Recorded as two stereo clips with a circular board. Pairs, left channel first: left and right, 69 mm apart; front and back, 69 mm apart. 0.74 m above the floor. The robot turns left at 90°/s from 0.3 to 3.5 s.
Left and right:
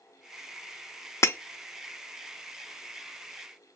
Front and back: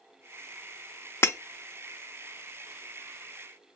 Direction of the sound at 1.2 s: 50° left.